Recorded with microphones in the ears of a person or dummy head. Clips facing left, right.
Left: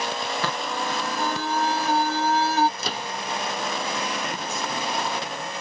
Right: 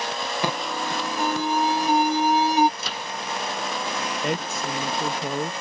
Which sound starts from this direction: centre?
An alarm, at 0.4 s.